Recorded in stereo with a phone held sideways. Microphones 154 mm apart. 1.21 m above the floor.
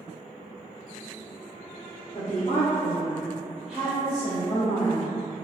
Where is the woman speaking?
60° left (ahead or behind), 1.1 m; by 5.1 s 60° right (ahead or behind), 1.1 m.